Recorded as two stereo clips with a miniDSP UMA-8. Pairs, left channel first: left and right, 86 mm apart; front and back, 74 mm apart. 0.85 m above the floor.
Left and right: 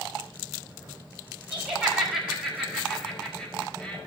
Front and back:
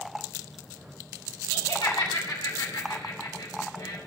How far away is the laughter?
About 5 m.